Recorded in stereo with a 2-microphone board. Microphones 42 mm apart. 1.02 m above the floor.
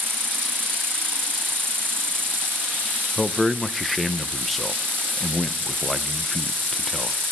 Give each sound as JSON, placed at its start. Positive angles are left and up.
{"t": 0.0, "sound": "an insect", "side_deg": -55, "distance_m": 1.8}
{"t": 3.2, "sound": "a man speaking", "side_deg": 0, "distance_m": 0.6}